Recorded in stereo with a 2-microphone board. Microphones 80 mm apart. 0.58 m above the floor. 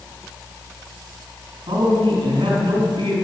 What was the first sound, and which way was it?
A man speaking, 75° right (ahead or behind).